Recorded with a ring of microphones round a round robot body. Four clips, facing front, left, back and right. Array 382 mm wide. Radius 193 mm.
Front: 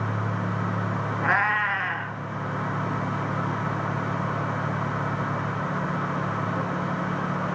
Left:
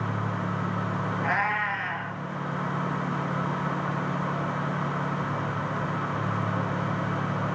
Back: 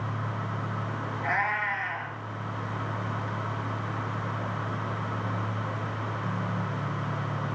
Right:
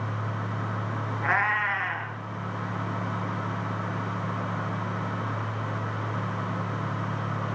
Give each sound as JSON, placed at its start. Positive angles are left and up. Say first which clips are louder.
{"t": 1.2, "sound": "a cat meowing", "louder": "right 2 dB, front 5 dB", "azimuth_deg": -30, "distance_m": 3.0}